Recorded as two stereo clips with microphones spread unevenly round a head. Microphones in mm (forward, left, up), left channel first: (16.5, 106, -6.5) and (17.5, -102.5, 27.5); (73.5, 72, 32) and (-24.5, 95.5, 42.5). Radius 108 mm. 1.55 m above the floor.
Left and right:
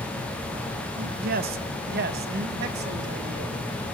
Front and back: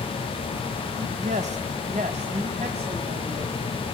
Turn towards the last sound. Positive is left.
turn(degrees=-135)